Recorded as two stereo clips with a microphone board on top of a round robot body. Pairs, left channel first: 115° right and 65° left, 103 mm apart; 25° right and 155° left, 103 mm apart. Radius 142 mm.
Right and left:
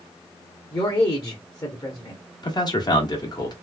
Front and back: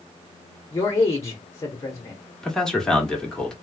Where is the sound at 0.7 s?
75° right, 1.1 m.